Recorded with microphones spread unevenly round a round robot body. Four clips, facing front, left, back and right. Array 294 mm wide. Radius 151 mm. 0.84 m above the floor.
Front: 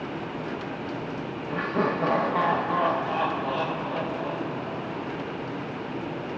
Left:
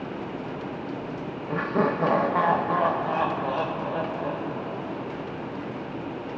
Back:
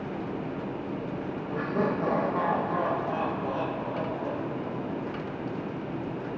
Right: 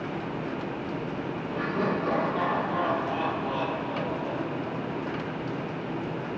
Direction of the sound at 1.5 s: 65° left.